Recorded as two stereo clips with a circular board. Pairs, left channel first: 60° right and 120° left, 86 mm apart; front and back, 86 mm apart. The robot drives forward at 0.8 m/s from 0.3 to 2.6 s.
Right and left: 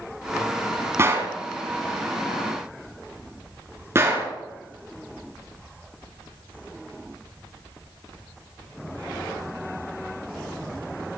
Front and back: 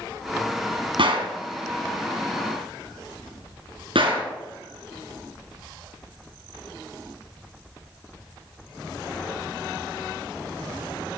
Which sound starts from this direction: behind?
A gunshot, at 1.0 s.